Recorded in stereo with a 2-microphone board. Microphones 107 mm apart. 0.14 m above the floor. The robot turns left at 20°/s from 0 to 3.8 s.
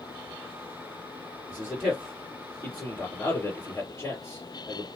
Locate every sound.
1.5 s a man speaking: centre (ahead or behind), 2.5 m; by 4.8 s 30° left (ahead or behind), 2.5 m